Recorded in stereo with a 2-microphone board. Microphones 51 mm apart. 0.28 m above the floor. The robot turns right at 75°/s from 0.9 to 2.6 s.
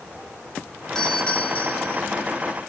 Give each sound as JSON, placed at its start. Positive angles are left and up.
{"t": 0.9, "sound": "a doorbell", "azimuth_deg": 35, "distance_m": 2.5}